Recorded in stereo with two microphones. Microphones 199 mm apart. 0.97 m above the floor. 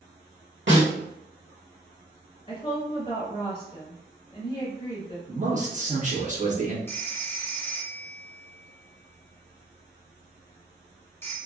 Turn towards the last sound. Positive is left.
turn(degrees=10)  # may be behind; listen again after turning